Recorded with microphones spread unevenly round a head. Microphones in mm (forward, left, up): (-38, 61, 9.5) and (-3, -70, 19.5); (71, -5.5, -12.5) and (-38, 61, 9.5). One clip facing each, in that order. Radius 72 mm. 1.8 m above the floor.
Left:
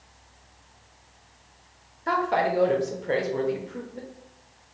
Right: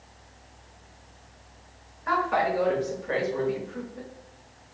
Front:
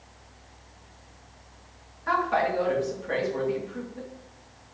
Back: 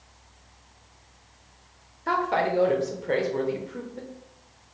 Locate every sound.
2.1 s a woman speaking: 150° left, 0.9 m